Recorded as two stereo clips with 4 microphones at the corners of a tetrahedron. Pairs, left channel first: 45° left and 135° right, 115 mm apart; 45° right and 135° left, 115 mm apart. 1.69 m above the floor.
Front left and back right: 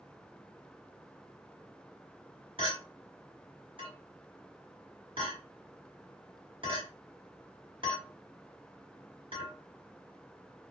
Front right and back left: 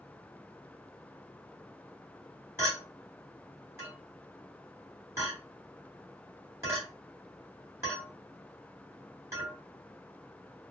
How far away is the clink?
About 1.4 m.